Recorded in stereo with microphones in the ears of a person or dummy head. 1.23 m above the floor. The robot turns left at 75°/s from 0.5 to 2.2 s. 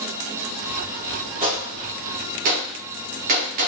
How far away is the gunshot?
About 0.9 m.